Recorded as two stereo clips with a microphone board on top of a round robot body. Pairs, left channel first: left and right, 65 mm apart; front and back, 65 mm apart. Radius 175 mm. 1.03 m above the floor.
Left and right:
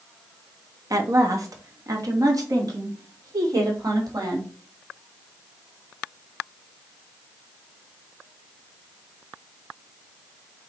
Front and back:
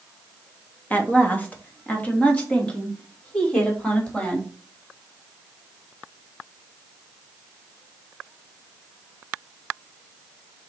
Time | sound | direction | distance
0.9 | a woman speaking | 65° right | 1.6 m